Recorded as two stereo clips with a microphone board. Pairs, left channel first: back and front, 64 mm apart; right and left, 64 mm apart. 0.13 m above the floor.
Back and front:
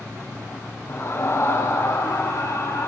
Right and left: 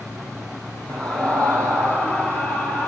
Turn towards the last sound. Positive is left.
turn(degrees=-150)